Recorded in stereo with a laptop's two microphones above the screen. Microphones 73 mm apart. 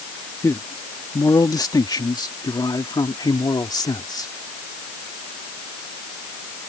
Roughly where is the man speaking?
Left.